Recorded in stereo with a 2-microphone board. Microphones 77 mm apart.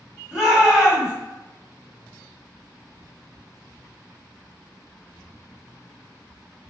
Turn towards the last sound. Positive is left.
turn(degrees=-10)  # may be behind; listen again after turning